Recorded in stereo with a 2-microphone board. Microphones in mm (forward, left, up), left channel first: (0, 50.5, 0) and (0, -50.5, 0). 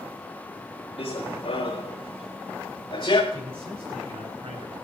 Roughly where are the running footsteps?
Left.